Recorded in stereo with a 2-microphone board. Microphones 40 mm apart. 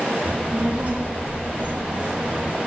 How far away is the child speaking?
About 0.9 m.